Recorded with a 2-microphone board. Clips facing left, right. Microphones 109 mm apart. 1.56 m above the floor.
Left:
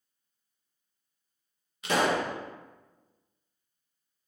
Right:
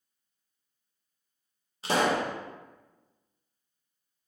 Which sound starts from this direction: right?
A pop, at 1.8 s.